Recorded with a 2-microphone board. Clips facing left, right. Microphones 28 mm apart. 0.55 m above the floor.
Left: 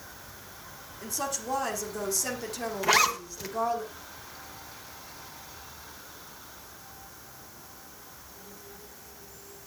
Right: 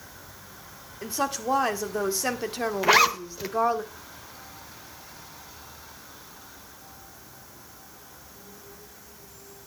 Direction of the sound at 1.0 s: 35° right (ahead or behind).